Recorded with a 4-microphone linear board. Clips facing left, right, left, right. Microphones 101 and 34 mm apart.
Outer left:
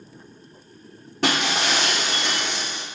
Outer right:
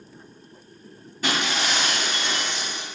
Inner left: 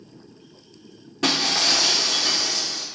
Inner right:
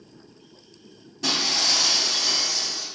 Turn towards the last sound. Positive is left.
turn(degrees=70)  # may be behind; listen again after turning